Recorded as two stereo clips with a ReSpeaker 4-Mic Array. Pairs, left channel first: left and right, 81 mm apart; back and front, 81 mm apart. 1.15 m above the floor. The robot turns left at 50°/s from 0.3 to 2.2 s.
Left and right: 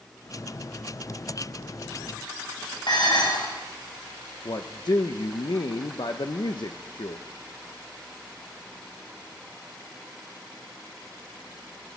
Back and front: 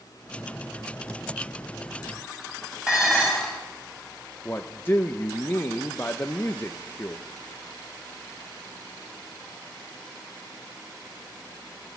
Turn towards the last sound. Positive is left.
turn(degrees=115)